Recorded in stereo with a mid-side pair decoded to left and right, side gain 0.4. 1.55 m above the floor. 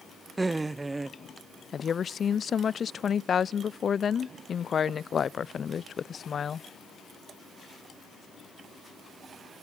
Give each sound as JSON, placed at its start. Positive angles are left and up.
{"t": 0.4, "sound": "laughter", "azimuth_deg": -25, "distance_m": 0.8}
{"t": 1.7, "sound": "a woman speaking", "azimuth_deg": 50, "distance_m": 0.6}